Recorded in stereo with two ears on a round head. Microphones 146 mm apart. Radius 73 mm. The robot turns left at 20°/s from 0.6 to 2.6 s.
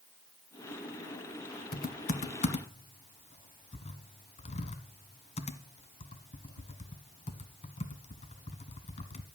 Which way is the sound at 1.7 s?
55° left (ahead or behind).